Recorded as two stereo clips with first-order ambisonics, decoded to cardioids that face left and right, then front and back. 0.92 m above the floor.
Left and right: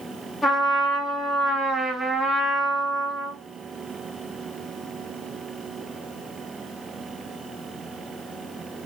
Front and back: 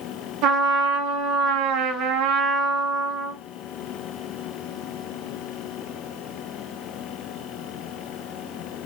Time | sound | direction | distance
0.4 | a trumpet | 170° left | 0.9 m